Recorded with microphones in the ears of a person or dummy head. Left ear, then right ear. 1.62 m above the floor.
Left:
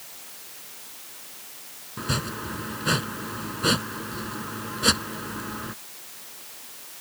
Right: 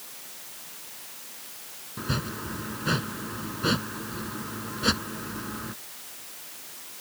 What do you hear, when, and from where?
2.0 s chopping: 10° left (ahead or behind)